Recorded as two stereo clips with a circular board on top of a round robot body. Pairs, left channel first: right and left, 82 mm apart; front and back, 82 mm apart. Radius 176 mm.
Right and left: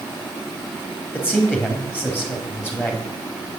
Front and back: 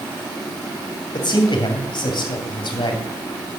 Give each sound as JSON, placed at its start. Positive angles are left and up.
{"t": 1.1, "sound": "a man speaking", "azimuth_deg": -20, "distance_m": 2.5}